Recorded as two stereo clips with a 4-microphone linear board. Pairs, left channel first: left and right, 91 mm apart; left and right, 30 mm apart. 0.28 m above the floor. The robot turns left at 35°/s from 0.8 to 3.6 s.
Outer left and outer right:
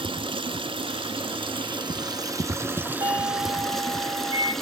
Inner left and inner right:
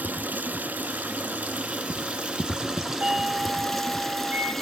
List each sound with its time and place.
0.0 s running water: 85° right, 1.4 m; by 4.6 s straight behind, 1.4 m
3.0 s a doorbell: 55° right (ahead or behind), 3 m; by 4.5 s 50° right (ahead or behind), 3 m